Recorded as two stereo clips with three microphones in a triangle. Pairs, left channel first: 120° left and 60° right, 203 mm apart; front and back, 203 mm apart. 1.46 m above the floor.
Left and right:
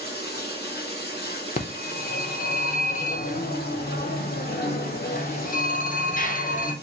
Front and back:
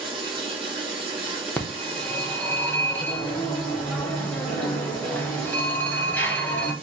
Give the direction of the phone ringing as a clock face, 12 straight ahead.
9 o'clock.